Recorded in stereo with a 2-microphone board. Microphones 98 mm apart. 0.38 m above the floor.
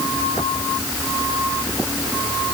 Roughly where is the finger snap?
I don't hear a finger snap.